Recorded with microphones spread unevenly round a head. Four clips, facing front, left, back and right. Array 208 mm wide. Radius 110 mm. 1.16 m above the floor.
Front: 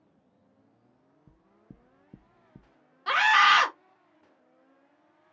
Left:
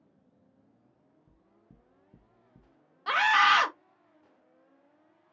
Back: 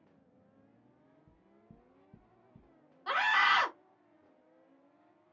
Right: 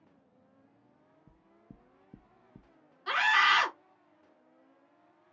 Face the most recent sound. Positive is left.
turn(degrees=45)